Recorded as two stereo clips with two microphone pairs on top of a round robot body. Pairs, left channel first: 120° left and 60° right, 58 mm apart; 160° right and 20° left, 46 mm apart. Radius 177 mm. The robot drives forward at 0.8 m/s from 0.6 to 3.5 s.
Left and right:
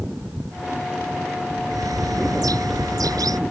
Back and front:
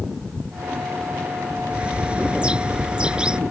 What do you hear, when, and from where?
1.7 s a bird: 45° right; by 3.4 s 50° right